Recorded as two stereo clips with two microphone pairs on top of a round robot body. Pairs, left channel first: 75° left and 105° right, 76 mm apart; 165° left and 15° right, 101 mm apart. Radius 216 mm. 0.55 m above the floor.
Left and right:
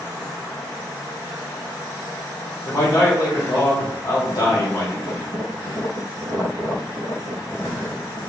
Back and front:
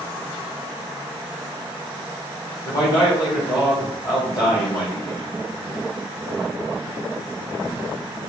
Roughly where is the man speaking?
Behind left.